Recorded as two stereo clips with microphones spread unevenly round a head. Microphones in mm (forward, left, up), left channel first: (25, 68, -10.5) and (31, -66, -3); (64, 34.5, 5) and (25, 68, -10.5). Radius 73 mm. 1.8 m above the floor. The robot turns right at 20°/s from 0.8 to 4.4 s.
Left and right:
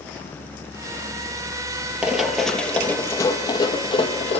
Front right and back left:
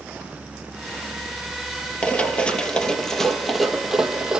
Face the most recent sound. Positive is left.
turn(degrees=55)